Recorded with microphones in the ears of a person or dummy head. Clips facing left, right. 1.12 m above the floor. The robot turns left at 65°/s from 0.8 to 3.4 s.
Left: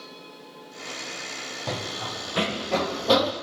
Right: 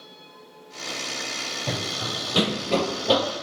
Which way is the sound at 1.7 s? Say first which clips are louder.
Right 1 dB; 10° right (ahead or behind).